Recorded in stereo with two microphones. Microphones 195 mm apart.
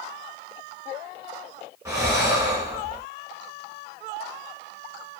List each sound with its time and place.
1.9 s breathing: 15° right (ahead or behind), 0.8 m